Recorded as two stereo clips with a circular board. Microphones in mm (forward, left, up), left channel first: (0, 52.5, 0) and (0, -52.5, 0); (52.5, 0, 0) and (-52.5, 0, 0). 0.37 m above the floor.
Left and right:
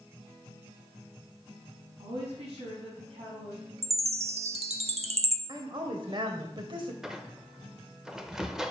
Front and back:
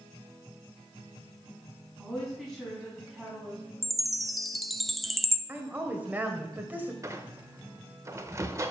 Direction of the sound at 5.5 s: 110° right.